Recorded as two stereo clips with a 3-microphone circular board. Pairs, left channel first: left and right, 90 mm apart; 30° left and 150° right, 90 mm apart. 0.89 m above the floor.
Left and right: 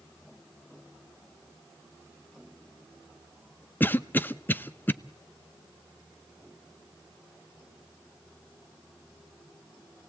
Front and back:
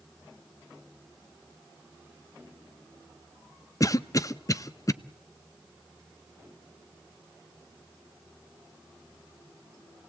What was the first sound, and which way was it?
A cough, 35° left.